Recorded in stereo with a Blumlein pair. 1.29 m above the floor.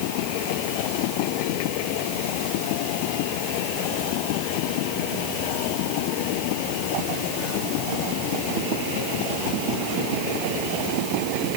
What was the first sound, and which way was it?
Only background noise.